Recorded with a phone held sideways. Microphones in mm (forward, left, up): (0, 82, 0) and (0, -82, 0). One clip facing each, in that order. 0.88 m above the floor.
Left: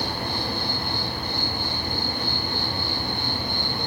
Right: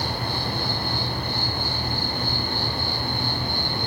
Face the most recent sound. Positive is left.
turn(degrees=-60)  # may be behind; listen again after turning